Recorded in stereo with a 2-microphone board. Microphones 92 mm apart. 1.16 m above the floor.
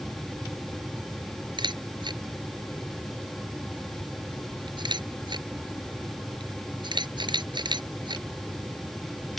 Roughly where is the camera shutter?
Right.